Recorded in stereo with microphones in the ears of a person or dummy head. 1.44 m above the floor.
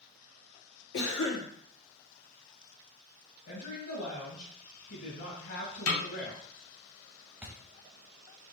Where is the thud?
5° right (ahead or behind), 0.8 m.